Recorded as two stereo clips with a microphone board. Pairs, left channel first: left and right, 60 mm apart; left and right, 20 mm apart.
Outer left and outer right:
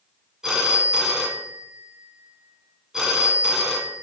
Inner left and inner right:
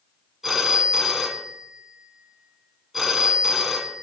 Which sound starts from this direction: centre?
A phone ringing, at 0.4 s.